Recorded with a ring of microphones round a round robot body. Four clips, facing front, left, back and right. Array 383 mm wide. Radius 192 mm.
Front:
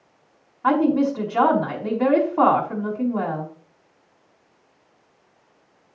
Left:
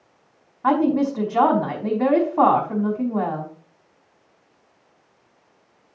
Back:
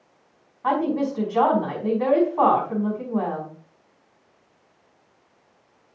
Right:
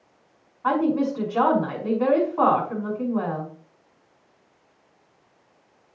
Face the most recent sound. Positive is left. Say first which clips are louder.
# left 3 dB, front 4 dB
turn(degrees=80)